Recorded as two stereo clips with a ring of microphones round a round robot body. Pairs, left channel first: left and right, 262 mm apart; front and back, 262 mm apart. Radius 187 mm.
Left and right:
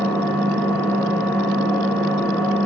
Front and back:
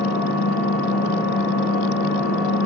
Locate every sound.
0.0 s an engine running: 10° left, 1.4 m